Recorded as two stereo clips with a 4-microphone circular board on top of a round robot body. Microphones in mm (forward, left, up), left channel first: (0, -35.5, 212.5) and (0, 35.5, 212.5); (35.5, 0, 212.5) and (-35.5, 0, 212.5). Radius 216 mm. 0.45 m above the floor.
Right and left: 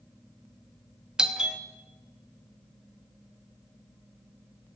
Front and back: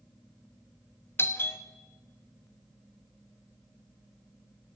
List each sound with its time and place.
1.2 s a doorbell: 20° left, 1.4 m